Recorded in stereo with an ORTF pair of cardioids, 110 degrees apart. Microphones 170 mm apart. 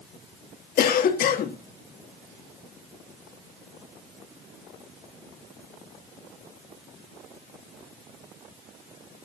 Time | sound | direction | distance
0.8 | a cough | 60° left | 1.8 m